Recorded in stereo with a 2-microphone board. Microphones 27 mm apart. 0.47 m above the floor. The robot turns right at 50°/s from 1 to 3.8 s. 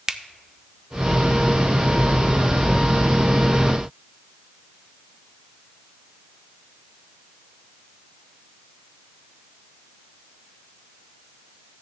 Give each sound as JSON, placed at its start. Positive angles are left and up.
{"t": 0.1, "sound": "a finger snap", "side_deg": -25, "distance_m": 0.5}